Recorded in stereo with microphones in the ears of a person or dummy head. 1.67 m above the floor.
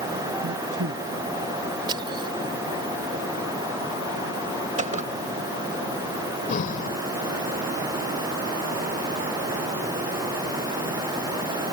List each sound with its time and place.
0.4 s a man speaking: 85° right
1.9 s crushing: 30° right (ahead or behind)
4.8 s a gunshot: 30° right (ahead or behind)
6.5 s breathing: 45° left (ahead or behind)